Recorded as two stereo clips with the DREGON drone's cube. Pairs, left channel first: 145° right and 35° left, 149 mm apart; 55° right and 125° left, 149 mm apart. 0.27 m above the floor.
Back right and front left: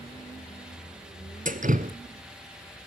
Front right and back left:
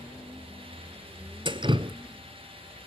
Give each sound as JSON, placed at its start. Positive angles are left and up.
{"t": 1.4, "sound": "dripping", "azimuth_deg": 65, "distance_m": 1.0}